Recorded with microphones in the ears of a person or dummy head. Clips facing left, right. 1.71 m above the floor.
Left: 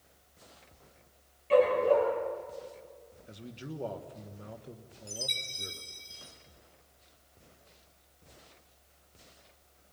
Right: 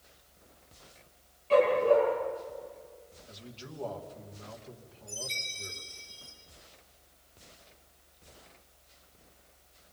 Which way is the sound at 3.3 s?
25° left (ahead or behind).